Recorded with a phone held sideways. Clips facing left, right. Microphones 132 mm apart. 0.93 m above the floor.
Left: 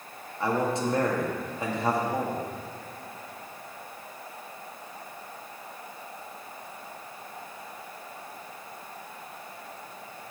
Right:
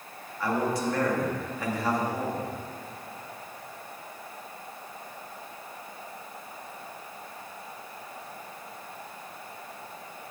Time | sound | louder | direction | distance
0.4 | a man speaking | left 1 dB | 20° left (ahead or behind) | 1.9 m